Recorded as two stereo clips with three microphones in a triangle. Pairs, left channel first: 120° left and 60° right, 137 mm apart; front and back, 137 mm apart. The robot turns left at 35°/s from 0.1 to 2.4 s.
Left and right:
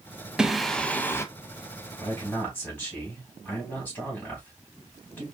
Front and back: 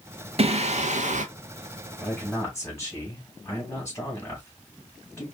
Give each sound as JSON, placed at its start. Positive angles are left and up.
{"t": 0.4, "sound": "singing", "azimuth_deg": -140, "distance_m": 0.5}
{"t": 2.0, "sound": "a man speaking", "azimuth_deg": 65, "distance_m": 1.6}